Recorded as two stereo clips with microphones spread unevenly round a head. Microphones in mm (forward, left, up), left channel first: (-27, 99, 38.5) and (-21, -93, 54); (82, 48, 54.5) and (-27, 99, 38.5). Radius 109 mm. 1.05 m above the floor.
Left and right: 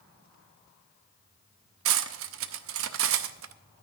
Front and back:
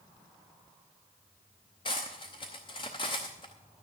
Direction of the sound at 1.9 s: 85° right.